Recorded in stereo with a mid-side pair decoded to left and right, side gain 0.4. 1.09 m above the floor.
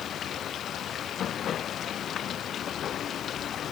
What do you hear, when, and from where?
0.0 s running water: 65° left